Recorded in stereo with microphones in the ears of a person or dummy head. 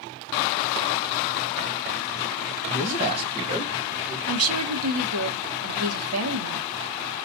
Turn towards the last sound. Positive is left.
turn(degrees=-80)